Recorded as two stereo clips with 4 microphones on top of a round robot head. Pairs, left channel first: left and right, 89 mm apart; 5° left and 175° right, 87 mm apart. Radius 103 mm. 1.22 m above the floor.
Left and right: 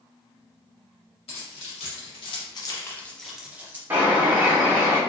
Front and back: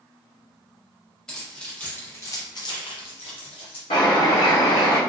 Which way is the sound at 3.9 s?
25° right.